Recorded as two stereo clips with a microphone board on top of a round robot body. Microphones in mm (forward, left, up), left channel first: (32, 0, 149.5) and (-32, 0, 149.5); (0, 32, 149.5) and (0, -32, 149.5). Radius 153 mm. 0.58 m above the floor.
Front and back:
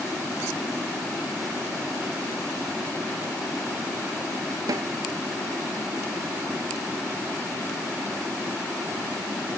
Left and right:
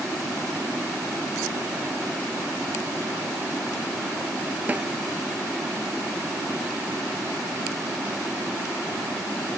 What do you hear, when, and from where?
4.7 s a snare drum: 155° right